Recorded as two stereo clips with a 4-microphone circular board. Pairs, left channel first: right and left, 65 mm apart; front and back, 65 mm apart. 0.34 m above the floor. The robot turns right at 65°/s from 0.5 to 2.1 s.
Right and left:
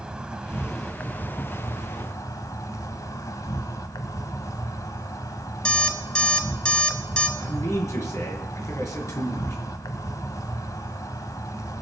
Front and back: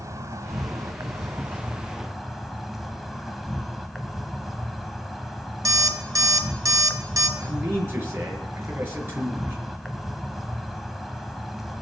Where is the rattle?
No rattle in this recording.